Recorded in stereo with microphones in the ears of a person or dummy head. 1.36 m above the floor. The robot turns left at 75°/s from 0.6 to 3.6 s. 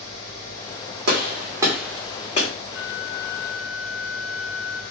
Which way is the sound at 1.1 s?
55° right (ahead or behind).